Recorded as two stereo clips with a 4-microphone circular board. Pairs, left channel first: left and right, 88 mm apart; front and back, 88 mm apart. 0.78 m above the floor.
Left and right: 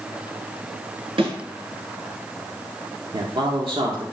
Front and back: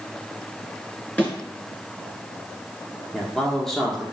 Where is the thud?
75° right, 3.5 m.